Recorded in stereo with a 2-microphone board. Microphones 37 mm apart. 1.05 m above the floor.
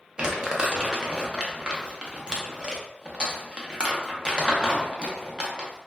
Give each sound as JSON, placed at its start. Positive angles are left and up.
{"t": 0.2, "sound": "crumpling", "side_deg": -30, "distance_m": 0.6}